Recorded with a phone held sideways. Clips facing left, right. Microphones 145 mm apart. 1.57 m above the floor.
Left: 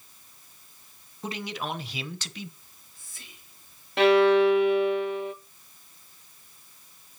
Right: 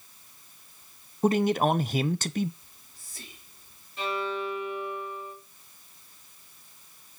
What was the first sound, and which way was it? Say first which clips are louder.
A man speaking: right 11 dB; 45° right (ahead or behind).